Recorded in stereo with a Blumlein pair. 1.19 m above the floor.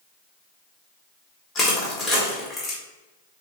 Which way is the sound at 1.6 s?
20° left.